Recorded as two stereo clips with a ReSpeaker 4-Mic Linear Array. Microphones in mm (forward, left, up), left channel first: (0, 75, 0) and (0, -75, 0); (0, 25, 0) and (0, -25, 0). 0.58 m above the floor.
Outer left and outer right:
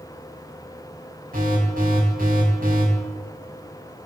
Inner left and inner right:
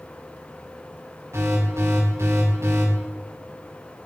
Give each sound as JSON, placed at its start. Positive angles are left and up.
{"t": 1.3, "sound": "an alarm", "side_deg": -75, "distance_m": 6.5}